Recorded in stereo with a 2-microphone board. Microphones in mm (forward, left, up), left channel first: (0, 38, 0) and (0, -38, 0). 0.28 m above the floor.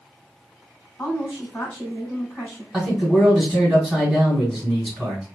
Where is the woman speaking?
20° left (ahead or behind), 1.5 m.